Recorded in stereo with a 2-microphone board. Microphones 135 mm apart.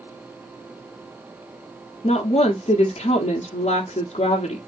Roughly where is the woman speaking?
Left.